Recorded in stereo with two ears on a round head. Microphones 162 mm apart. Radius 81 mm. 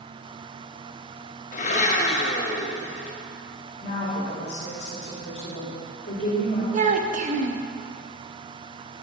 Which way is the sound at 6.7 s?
40° right (ahead or behind).